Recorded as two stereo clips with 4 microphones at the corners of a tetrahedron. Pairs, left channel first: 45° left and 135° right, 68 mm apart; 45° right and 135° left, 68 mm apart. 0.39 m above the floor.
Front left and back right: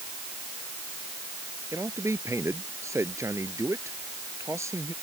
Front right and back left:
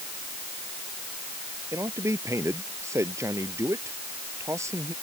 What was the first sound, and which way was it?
A man speaking, straight behind.